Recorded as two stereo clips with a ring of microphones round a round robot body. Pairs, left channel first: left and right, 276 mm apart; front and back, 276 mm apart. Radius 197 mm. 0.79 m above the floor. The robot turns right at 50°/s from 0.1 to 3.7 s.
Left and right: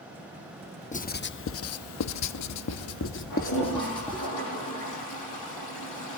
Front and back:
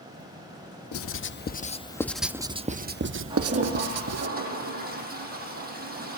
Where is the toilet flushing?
105° left, 10 m; by 6.2 s 125° left, 10 m.